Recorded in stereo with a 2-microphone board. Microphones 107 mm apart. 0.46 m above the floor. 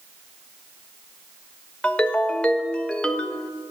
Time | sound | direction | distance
1.8 | a ringtone | 10° left (ahead or behind) | 0.7 m